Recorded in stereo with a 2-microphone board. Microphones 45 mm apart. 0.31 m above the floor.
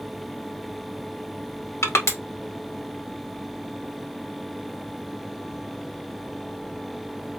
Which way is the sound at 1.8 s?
85° left.